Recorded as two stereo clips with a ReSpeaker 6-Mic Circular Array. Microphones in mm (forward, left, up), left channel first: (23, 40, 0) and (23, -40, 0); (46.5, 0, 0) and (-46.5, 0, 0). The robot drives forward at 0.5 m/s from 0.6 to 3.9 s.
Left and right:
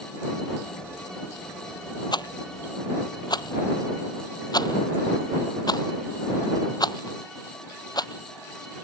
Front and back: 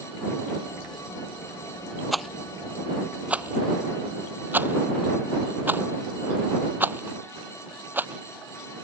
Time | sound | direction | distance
2.1 | a rattle | 90° left | ?